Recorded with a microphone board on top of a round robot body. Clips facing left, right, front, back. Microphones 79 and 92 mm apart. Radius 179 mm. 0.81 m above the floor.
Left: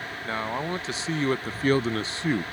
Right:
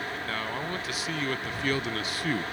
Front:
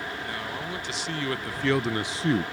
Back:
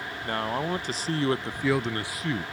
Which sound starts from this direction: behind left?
A man speaking, at 0.2 s.